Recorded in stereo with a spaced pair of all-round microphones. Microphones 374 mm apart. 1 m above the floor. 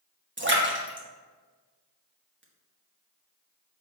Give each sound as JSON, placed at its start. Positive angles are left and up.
{"t": 0.4, "sound": "a splash", "side_deg": -30, "distance_m": 1.2}